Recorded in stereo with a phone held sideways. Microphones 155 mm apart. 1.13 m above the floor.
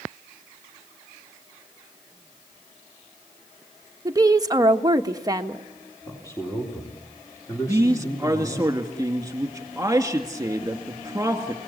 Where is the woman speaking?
25° right (ahead or behind), 1.2 m.